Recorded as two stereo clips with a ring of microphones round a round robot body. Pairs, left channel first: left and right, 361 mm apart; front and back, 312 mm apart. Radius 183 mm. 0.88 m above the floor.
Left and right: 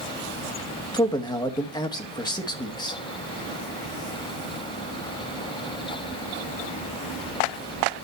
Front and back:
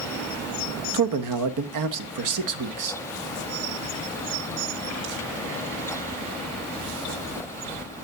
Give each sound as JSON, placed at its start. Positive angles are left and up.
{"t": 0.9, "sound": "a man speaking", "azimuth_deg": 170, "distance_m": 1.1}